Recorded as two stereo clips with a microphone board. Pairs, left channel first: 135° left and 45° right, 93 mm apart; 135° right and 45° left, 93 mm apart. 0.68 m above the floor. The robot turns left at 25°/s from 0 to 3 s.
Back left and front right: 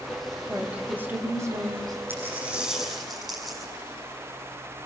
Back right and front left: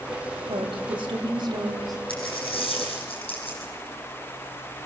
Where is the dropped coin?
110° right, 6.5 m; by 3.7 s 135° right, 6.5 m.